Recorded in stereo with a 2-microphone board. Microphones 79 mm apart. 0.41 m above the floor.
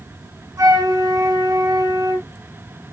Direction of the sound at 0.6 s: 50° right (ahead or behind).